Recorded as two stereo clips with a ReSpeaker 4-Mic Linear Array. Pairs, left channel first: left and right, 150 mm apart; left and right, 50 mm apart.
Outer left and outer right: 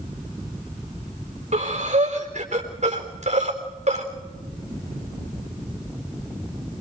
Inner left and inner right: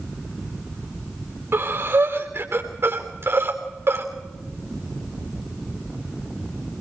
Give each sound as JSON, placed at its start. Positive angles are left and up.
{"t": 1.5, "sound": "breathing", "side_deg": -50, "distance_m": 3.5}